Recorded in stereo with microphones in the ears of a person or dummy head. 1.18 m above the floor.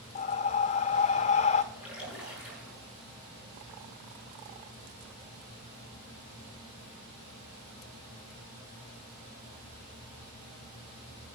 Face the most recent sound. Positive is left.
turn(degrees=-5)  # may be behind; listen again after turning